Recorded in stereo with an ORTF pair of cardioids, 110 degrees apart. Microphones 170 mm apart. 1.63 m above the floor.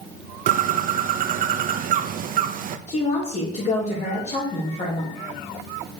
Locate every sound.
0.5 s a bird: 55° right, 0.8 m
2.9 s a woman speaking: 40° left, 3.5 m